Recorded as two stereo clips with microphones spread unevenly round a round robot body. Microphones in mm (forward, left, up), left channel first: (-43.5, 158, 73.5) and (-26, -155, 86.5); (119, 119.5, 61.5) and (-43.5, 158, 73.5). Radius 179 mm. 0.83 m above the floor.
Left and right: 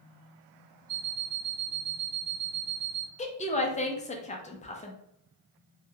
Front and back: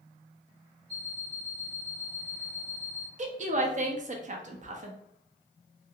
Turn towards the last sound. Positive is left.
turn(degrees=150)